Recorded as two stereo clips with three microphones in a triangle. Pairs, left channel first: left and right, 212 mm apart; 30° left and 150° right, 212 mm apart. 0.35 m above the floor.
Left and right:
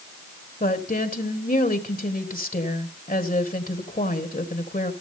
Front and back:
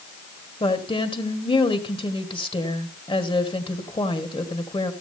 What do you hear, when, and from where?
0.6 s a woman speaking: 80° left, 1.6 m